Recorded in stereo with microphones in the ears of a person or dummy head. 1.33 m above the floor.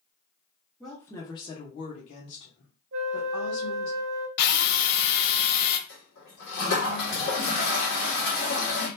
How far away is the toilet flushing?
About 1.7 m.